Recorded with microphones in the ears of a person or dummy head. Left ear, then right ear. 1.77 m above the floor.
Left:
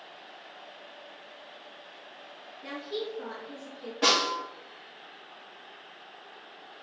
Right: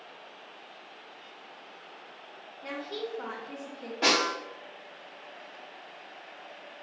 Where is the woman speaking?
Centre (ahead or behind), 0.9 m; by 3.9 s 65° right (ahead or behind), 0.8 m.